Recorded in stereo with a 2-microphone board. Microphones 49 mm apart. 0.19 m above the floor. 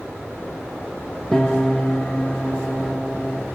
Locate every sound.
1.3 s a piano: 10° left (ahead or behind), 1.1 m